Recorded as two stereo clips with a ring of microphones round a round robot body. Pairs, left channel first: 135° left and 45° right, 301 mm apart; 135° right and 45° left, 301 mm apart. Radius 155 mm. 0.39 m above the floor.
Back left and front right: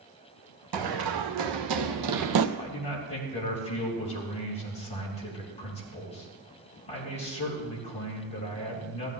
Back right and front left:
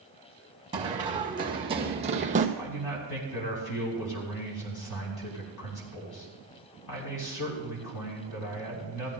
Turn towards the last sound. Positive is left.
turn(degrees=-155)